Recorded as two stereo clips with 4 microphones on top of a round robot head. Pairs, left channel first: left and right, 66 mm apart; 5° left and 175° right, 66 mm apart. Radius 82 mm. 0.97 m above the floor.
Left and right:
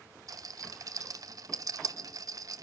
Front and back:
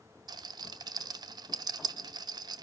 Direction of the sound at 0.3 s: 140° right.